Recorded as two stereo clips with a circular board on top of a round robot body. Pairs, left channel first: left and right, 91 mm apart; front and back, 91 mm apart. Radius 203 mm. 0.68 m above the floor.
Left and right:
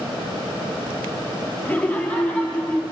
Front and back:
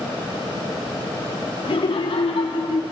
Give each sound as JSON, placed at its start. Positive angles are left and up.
{"t": 1.6, "sound": "laughter", "azimuth_deg": 15, "distance_m": 1.6}